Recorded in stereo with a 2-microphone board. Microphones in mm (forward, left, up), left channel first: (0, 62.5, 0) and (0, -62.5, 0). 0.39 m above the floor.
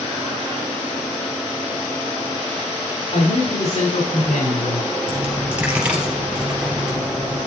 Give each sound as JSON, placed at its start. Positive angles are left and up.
{"t": 3.1, "sound": "a man speaking", "side_deg": 65, "distance_m": 4.0}
{"t": 5.1, "sound": "a dropped coin", "side_deg": -10, "distance_m": 3.5}